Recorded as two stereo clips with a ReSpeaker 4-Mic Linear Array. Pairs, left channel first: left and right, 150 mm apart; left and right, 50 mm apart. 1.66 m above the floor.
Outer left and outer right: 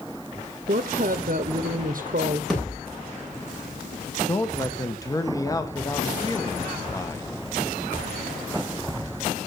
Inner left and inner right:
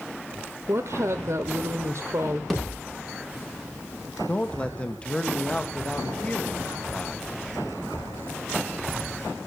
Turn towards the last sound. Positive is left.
turn(degrees=25)  # may be behind; listen again after turning